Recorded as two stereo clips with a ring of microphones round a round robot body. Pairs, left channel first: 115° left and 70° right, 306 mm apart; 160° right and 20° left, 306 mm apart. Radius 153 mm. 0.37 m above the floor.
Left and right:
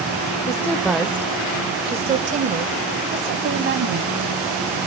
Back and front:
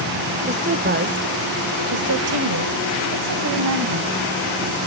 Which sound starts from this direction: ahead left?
A woman speaking, at 0.5 s.